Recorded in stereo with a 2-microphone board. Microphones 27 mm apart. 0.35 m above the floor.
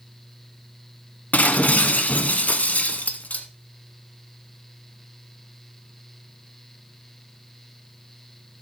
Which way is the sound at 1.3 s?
65° left (ahead or behind).